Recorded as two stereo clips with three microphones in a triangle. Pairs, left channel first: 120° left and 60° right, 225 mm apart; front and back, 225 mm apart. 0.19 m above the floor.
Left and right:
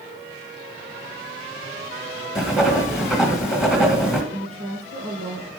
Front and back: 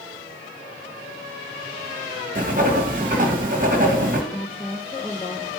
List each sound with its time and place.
2.4 s writing: 150° right, 1.6 m
4.3 s a woman speaking: 65° right, 4 m